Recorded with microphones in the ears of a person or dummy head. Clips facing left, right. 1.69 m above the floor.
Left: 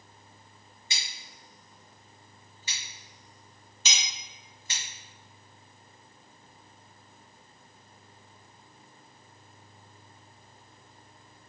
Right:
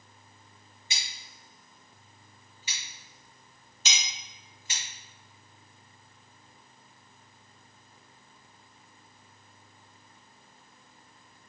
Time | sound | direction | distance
0.9 | scissors | 10° right (ahead or behind) | 1.4 m
3.9 | a clink | 55° left (ahead or behind) | 1.1 m